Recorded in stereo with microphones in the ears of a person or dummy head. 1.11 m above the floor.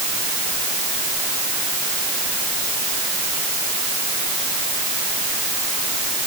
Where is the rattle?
I don't hear a rattle.